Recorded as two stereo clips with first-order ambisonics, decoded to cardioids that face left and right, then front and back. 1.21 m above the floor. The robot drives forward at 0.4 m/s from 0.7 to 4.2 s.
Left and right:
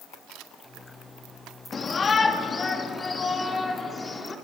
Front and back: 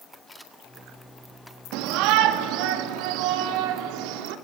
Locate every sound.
0.3 s a camera shutter: 90° right, 1.9 m
1.7 s a shout: 160° left, 1.7 m; by 4.3 s 170° left, 2.5 m